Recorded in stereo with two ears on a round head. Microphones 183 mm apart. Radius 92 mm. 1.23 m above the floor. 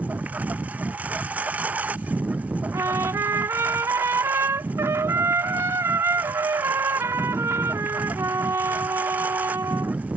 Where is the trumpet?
15° right (ahead or behind).